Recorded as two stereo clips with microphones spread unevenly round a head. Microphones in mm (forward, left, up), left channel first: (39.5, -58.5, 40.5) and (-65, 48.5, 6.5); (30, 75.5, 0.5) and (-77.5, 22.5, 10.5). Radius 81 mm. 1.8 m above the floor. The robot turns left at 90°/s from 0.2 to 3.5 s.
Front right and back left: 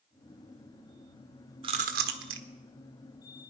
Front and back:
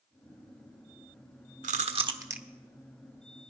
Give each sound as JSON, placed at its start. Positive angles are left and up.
{"t": 1.6, "sound": "chewing", "azimuth_deg": -160, "distance_m": 1.3}